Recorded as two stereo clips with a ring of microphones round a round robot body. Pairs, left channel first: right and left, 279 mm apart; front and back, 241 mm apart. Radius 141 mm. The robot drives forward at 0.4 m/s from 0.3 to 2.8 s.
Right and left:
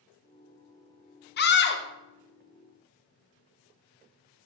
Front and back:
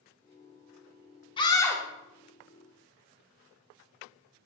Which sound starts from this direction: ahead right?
A scream, at 1.4 s.